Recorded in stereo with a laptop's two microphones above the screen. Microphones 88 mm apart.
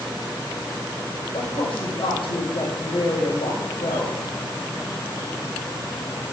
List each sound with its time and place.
1.3 s a woman speaking: 85° left, 4 m